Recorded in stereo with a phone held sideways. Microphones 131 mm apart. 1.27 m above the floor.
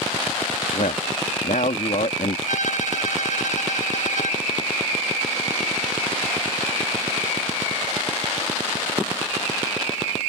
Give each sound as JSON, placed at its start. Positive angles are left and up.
{"t": 0.7, "sound": "a man speaking", "side_deg": 75}
{"t": 2.5, "sound": "a violin", "side_deg": 70}